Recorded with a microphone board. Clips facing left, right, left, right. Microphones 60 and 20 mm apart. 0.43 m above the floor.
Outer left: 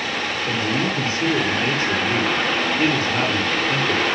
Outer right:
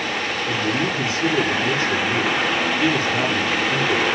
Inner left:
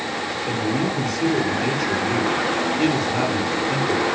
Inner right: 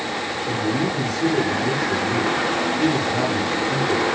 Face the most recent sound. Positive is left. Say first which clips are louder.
# even, even
turn(degrees=30)  # may be behind; listen again after turning